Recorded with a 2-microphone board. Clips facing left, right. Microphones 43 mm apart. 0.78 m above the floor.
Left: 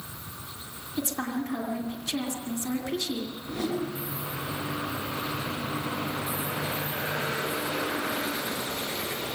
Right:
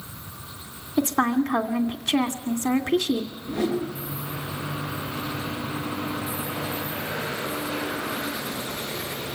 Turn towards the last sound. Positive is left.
turn(degrees=-15)  # may be behind; listen again after turning